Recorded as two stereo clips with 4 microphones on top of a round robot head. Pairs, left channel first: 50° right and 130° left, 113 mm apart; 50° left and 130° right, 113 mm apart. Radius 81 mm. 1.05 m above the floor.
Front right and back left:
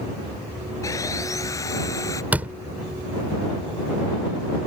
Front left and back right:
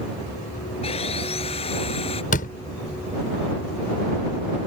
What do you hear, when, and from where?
0.8 s sawing: 10° left
2.3 s a door slam: 50° left